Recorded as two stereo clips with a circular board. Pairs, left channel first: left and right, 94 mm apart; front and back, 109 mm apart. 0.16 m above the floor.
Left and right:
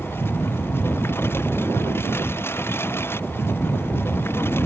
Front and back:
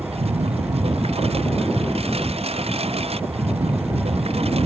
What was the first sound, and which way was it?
A lawn mower, 155° left.